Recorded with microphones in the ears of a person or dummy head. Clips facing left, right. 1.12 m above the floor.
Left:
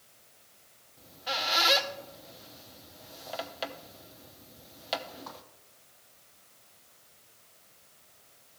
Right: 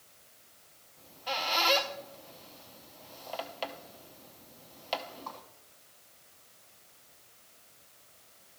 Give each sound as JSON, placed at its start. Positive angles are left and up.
{"t": 1.0, "sound": "a squeak", "side_deg": 10, "distance_m": 0.7}